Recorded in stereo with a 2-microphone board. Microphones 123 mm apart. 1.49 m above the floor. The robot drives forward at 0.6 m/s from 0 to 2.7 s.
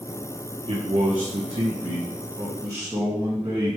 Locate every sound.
0.7 s a man speaking: 55° right (ahead or behind), 1.2 m; by 3.8 s 30° right (ahead or behind), 2 m